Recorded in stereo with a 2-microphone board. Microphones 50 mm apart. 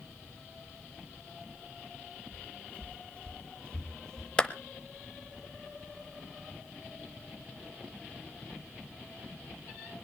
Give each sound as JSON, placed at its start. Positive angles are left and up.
{"t": 2.3, "sound": "footsteps", "side_deg": 35, "distance_m": 3.0}
{"t": 4.4, "sound": "a clap", "side_deg": 20, "distance_m": 0.8}